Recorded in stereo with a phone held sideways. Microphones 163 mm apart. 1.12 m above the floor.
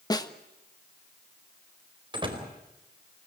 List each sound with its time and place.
0.1 s a snare drum: 25° left (ahead or behind), 1.3 m
2.1 s a door slam: 30° right (ahead or behind), 4 m